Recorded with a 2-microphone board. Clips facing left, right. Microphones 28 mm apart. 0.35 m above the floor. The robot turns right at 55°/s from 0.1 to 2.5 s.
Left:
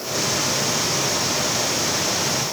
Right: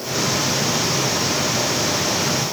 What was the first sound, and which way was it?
Only background noise.